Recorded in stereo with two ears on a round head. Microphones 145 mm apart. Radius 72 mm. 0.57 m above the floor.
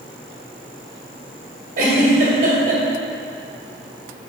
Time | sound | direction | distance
1.8 | a giggle | 55° right (ahead or behind) | 1.9 m